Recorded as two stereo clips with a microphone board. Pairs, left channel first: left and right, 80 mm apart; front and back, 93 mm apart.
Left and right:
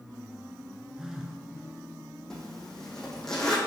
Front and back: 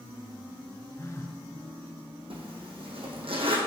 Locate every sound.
1.0 s a phone buzzing: 10° right, 0.8 m
2.3 s a zipper: 175° left, 1.3 m